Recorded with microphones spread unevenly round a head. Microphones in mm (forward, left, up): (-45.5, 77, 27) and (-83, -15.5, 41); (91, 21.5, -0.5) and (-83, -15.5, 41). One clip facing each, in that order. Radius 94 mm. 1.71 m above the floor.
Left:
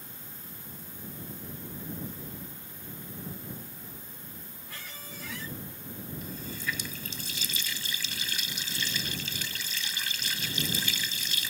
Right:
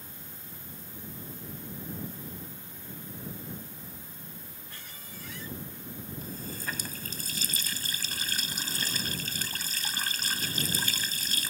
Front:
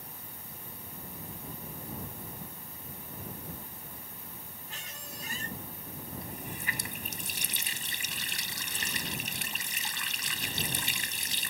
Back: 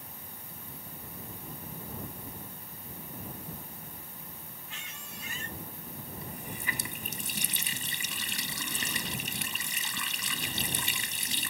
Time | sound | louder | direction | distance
4.7 | a squeak | left 6 dB, front 1 dB | 70° left | ?
6.2 | a running tap | left 1 dB, even | 160° right | ?